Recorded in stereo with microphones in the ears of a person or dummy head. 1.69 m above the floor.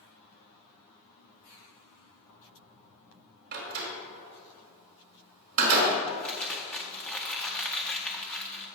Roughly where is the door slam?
Right.